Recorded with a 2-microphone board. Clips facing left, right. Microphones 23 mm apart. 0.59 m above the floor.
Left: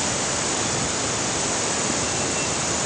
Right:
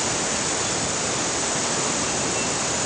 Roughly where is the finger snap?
No finger snap in this recording.